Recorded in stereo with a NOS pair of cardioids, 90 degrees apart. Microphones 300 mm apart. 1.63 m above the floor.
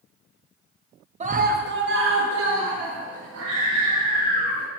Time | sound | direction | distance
1.2 | a scream | 25° right | 0.8 m